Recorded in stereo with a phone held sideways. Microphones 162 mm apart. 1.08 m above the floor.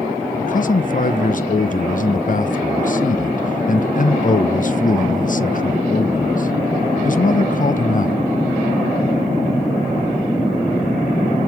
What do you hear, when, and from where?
0.4 s a man speaking: 55° left (ahead or behind), 0.5 m